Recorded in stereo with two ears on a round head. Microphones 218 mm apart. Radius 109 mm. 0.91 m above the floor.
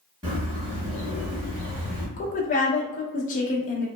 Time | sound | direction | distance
0.2 | a bird | 20° right (ahead or behind) | 1.8 m
2.2 | a woman speaking | 35° left (ahead or behind) | 0.5 m